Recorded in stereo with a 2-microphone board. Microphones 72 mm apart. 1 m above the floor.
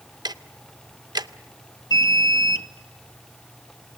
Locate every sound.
0.2 s ticking: 70° right (ahead or behind), 0.6 m
1.9 s an alarm: 60° left (ahead or behind), 1.2 m